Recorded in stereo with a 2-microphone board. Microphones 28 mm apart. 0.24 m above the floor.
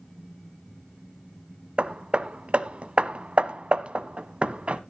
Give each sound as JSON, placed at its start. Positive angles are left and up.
{"t": 1.8, "sound": "hammering", "side_deg": -50, "distance_m": 0.6}